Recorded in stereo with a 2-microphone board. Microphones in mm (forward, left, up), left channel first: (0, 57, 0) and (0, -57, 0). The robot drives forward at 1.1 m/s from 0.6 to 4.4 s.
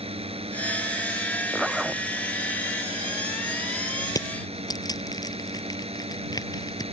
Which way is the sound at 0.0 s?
60° right (ahead or behind).